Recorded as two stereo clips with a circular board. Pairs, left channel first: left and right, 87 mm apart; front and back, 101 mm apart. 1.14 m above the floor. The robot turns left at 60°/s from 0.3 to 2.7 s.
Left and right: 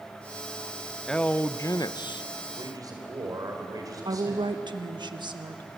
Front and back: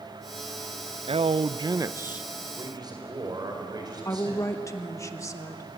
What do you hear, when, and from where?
1.1 s a man speaking: 170° left, 0.5 m; by 2.3 s 100° left, 0.5 m
2.5 s a man speaking: 120° right, 5 m; by 4.6 s 135° right, 5 m
4.0 s a woman speaking: 60° right, 1.2 m